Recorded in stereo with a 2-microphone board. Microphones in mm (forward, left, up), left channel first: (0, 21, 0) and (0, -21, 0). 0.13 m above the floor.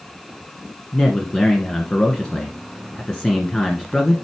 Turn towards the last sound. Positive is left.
turn(degrees=20)  # may be behind; listen again after turning